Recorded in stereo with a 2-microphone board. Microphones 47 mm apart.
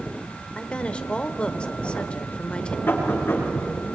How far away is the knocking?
About 6.5 m.